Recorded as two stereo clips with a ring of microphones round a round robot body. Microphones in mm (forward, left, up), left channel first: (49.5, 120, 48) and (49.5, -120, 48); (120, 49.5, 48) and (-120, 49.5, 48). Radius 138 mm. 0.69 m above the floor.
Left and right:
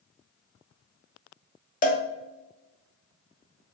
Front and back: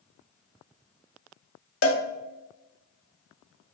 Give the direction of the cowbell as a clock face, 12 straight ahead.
11 o'clock.